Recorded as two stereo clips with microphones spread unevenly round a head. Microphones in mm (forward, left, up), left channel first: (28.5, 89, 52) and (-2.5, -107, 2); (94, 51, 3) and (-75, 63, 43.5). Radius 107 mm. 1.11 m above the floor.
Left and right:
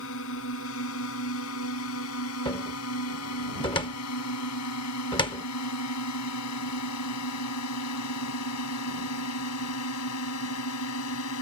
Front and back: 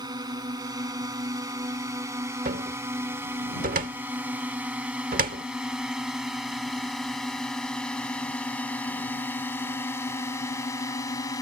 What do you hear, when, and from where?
0.0 s a drone: 110° left; by 11.4 s 65° left
2.5 s a cupboard door: 145° left